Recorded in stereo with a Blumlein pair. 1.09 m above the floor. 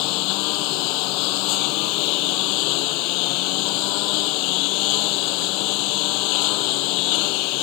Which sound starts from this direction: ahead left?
A lawn mower, at 0.0 s.